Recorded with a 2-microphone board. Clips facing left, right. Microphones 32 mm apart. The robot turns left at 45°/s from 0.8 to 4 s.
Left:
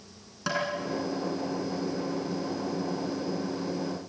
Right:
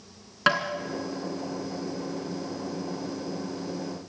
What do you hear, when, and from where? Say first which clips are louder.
0.5 s tapping: right 7 dB; 55° right (ahead or behind), 1.9 m